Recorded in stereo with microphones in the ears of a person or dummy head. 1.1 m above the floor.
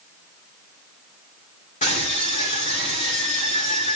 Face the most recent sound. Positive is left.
turn(degrees=35)  # may be behind; listen again after turning